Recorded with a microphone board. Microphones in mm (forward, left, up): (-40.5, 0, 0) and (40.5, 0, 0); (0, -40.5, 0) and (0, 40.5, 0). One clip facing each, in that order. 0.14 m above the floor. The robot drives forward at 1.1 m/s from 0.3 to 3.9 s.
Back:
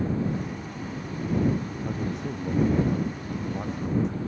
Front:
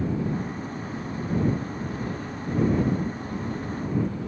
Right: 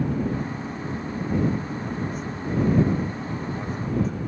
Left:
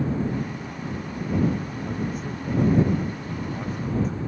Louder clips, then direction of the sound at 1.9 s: Back 1 dB, even; 175° left.